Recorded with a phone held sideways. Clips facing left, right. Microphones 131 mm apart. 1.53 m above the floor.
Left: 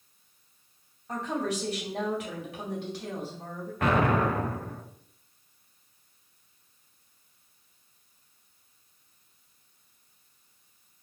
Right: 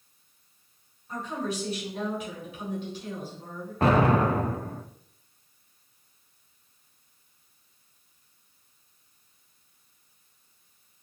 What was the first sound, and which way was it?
A woman speaking, 75° left (ahead or behind).